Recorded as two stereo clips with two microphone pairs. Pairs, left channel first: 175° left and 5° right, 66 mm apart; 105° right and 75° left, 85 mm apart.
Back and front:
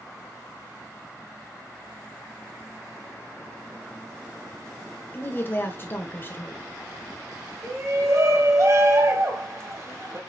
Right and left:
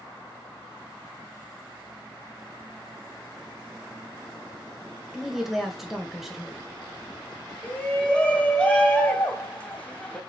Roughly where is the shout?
Ahead right.